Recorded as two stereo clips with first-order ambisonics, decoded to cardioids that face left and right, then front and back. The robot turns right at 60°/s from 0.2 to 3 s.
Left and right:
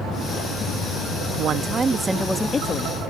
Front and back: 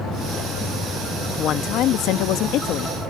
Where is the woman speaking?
55° right; by 3.0 s 45° left.